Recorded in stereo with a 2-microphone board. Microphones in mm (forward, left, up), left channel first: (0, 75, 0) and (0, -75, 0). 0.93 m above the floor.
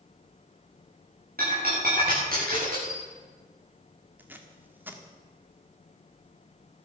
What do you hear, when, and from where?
1.4 s breaking glass: 85° right, 9 m
4.2 s tape being pulled: 10° right (ahead or behind), 1.6 m